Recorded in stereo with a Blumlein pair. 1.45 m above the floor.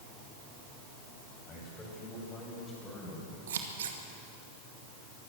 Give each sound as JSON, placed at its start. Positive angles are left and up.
{"t": 1.5, "sound": "a man speaking", "azimuth_deg": 20, "distance_m": 9.0}
{"t": 3.5, "sound": "scissors", "azimuth_deg": -60, "distance_m": 2.0}